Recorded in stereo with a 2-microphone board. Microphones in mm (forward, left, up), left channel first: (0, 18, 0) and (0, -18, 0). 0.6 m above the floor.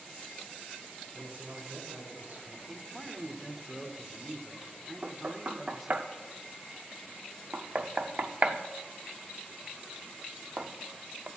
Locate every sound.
1.1 s a man speaking: 45° right (ahead or behind), 2.5 m; by 2.6 s 65° right (ahead or behind), 3 m
2.7 s a man speaking: 10° right (ahead or behind), 1.3 m
5.0 s knocking: 45° right (ahead or behind), 0.6 m